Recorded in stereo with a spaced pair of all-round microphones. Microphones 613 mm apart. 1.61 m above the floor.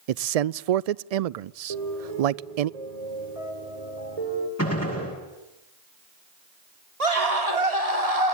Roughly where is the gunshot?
Left.